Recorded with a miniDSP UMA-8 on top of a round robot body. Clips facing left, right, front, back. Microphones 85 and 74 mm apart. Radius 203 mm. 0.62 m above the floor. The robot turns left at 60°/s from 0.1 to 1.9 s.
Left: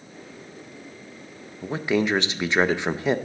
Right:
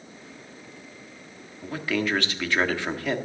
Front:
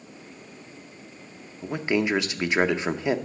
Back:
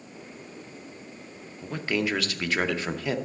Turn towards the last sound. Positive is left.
turn(degrees=45)